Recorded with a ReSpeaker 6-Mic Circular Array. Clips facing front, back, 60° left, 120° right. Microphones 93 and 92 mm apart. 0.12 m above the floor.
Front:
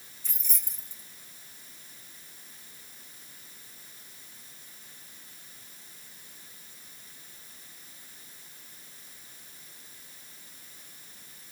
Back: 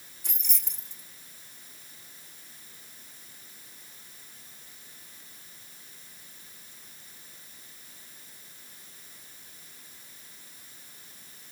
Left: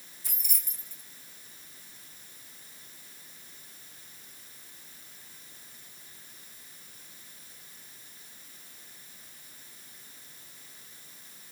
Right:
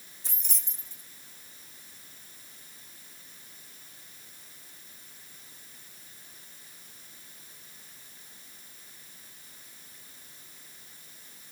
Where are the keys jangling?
175° left, 4.5 m.